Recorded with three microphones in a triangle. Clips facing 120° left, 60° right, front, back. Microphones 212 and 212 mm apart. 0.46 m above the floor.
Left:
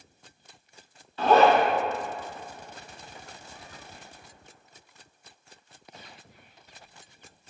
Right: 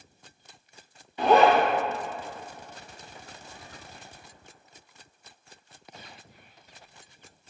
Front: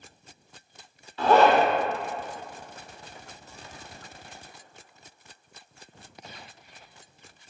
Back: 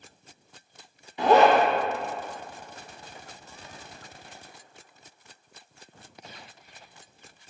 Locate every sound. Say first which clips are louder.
1.2 s a zipper: even, back 1 dB; 125° right, 1.2 m